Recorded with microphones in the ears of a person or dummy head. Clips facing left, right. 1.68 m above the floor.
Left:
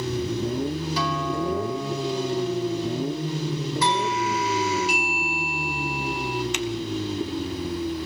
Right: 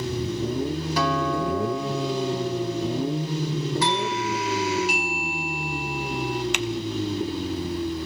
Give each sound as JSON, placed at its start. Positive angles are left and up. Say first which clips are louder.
{"t": 1.0, "sound": "a guitar", "louder": "right 5 dB", "side_deg": -45, "distance_m": 2.5}
{"t": 3.8, "sound": "a doorbell", "louder": "left 1 dB", "side_deg": 85, "distance_m": 1.6}
{"t": 6.5, "sound": "typing on a keyboard", "louder": "even", "side_deg": -55, "distance_m": 0.9}